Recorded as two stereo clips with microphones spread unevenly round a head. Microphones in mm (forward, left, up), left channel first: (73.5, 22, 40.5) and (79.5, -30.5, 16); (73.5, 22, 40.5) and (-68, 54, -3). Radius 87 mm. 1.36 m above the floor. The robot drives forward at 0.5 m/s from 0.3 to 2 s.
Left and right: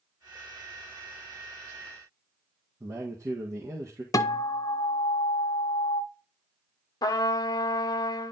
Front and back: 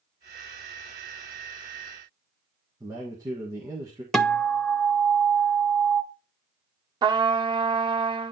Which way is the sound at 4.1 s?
80° left.